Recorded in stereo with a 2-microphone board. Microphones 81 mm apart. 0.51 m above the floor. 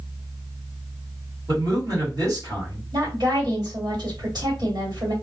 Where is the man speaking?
50° right (ahead or behind), 1.4 m.